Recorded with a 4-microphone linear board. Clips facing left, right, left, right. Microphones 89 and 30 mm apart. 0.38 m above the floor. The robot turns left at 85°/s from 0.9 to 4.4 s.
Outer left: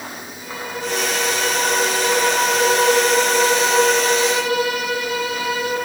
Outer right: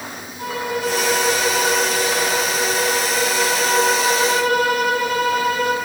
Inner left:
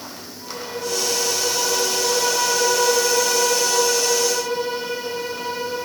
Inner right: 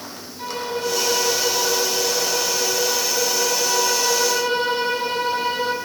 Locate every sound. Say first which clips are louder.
0.4 s a violin: outer right 6 dB, inner right 4 dB; 110° right, 5 m; by 5.8 s 45° right, 5 m